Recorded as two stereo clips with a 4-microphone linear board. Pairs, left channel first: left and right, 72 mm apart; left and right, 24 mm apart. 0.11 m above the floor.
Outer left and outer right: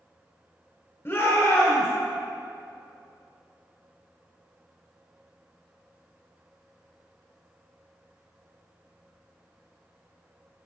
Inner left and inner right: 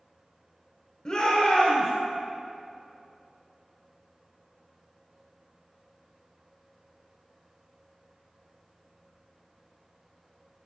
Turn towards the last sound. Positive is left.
turn(degrees=35)  # may be behind; listen again after turning